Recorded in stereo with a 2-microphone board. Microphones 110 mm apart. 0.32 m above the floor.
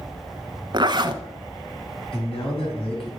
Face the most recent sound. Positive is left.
turn(degrees=55)  # may be behind; listen again after turning